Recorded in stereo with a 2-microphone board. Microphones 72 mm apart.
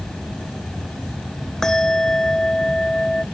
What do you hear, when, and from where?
1.6 s a bell: 5° left (ahead or behind)